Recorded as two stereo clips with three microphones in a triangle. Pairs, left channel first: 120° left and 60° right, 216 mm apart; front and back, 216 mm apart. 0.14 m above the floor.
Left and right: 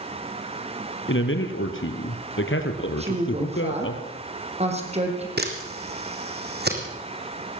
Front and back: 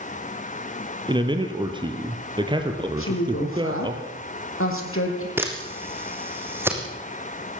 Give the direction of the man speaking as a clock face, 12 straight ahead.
8 o'clock.